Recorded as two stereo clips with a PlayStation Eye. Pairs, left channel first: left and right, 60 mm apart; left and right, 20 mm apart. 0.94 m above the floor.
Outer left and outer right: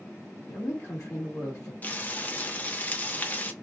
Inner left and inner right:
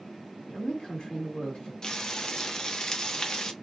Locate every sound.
0.5 s a woman speaking: 55° left (ahead or behind), 1.2 m
1.8 s frying: 25° left (ahead or behind), 0.7 m